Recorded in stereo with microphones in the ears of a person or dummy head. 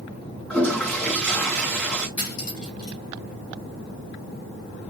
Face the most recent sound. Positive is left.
turn(degrees=70)  # may be behind; listen again after turning